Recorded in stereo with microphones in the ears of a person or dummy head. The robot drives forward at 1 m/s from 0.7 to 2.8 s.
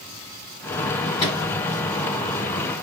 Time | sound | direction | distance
1.2 | a microwave | 30° left (ahead or behind) | 4.5 m